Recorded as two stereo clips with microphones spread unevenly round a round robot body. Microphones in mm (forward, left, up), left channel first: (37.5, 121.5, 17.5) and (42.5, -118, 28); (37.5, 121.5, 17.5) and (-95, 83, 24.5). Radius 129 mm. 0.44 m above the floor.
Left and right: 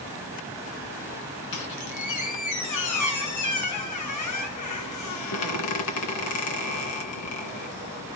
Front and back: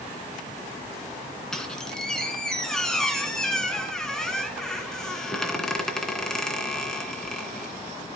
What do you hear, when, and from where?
1.5 s a squeak: 100° left, 2.5 m